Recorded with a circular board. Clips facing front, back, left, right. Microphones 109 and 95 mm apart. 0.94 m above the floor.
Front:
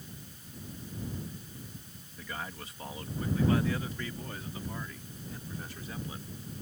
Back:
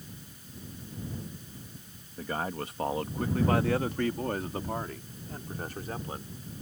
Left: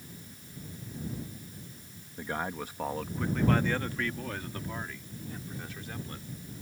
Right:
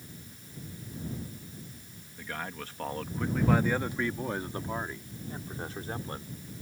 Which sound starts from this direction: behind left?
A man speaking, at 2.2 s.